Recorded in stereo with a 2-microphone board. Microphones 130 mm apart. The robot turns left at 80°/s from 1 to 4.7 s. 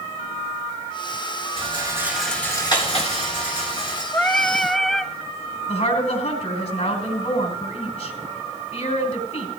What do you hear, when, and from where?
1.6 s a rattle: 125° right, 3.5 m; by 4.0 s 35° left, 3.5 m
4.1 s singing: 15° left (ahead or behind), 0.5 m; by 5.1 s 5° left (ahead or behind), 0.5 m
5.7 s a woman speaking: 60° left (ahead or behind), 3 m